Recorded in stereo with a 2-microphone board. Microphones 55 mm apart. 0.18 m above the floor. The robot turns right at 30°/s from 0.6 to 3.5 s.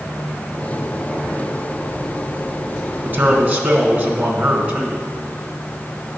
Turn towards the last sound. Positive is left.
turn(degrees=-30)  # may be behind; listen again after turning